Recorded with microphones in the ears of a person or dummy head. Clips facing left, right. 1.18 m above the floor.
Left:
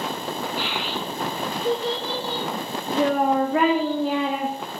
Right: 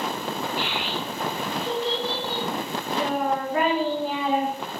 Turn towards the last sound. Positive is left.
turn(degrees=50)  # may be behind; listen again after turning